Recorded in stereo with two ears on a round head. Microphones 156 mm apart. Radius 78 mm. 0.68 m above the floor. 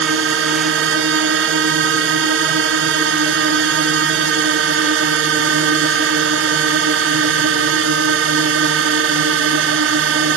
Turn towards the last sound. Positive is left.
turn(degrees=-80)